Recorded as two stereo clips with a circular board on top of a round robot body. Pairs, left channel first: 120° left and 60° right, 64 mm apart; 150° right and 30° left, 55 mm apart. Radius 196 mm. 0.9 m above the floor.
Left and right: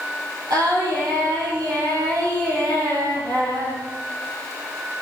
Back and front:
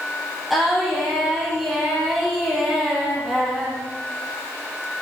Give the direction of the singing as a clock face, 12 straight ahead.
2 o'clock.